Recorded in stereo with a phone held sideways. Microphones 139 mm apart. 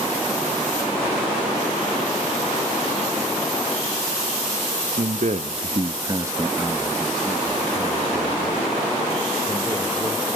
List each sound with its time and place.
5.0 s a man speaking: 60° right (ahead or behind), 0.8 m; by 10.3 s 25° left (ahead or behind), 2.5 m